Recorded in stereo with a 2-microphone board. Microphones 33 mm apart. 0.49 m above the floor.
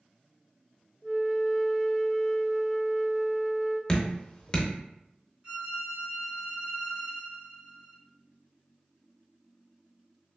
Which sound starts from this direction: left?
Dripping, at 3.9 s.